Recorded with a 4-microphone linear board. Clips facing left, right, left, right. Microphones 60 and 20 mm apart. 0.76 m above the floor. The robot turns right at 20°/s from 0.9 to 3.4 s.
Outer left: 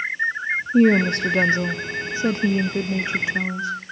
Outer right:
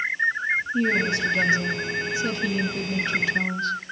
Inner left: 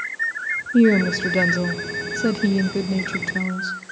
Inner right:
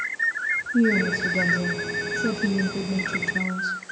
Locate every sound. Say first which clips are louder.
0.7 s a woman speaking: outer left 10 dB, inner left 6 dB; 110° left, 1.0 m; by 3.8 s 160° left, 1.0 m